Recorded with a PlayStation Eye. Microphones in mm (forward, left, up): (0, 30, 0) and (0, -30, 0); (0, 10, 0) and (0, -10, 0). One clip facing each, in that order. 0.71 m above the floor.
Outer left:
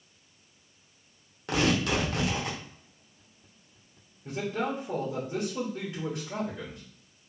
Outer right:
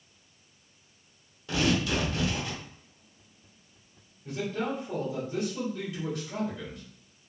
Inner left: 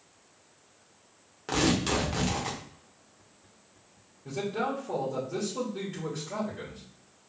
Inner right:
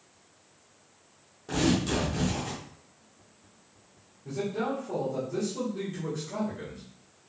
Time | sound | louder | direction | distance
1.5 | tearing paper | outer left 1 dB, even | 65° left (ahead or behind) | 0.9 m
4.2 | a man speaking | outer left 1 dB, even | 40° left (ahead or behind) | 1.1 m